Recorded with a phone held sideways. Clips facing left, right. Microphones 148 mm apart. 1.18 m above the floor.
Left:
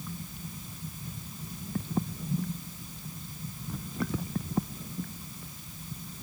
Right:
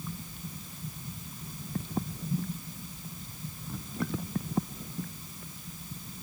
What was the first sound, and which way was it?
Only background noise.